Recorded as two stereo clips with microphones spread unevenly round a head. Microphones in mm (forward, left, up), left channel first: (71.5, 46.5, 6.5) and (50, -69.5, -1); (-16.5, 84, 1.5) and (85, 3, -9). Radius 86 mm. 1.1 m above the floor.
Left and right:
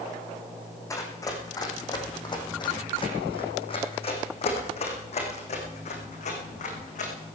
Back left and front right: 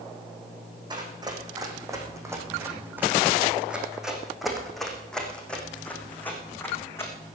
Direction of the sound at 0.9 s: 20° left.